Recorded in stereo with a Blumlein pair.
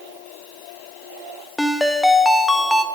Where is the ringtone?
5° left, 0.8 m.